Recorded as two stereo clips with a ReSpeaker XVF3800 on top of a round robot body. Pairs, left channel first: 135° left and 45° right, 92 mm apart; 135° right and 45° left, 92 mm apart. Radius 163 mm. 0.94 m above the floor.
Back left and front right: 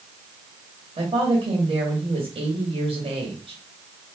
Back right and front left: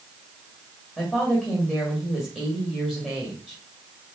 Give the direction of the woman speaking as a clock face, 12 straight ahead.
2 o'clock.